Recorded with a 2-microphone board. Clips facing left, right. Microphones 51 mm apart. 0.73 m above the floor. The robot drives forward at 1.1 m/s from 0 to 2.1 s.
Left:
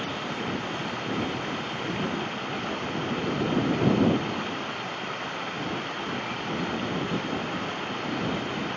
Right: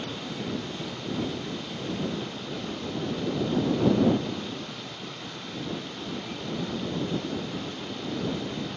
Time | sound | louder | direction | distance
0.0 | running water | left 3 dB | 45° left (ahead or behind) | ?